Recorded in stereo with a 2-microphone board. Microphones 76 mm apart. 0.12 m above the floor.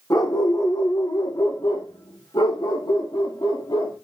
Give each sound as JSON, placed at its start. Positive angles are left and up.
{"t": 0.1, "sound": "a dog barking", "side_deg": 45, "distance_m": 2.5}